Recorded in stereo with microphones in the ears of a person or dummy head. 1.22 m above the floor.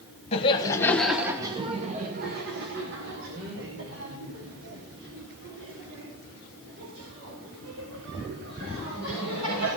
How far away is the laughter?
About 1.3 m.